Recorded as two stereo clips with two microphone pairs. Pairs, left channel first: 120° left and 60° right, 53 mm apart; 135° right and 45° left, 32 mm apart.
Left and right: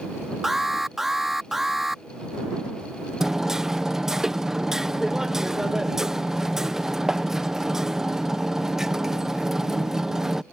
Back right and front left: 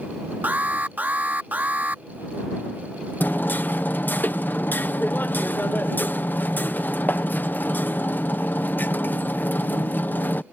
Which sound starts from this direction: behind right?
Hammering, at 3.2 s.